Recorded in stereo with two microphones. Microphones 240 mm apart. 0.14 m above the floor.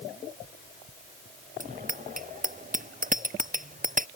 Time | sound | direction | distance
1.6 | a bicycle bell | 35° right (ahead or behind) | ?